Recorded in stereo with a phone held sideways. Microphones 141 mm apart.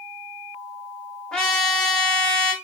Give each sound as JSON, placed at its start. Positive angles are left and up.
{"t": 1.3, "sound": "a trumpet", "side_deg": 5, "distance_m": 1.6}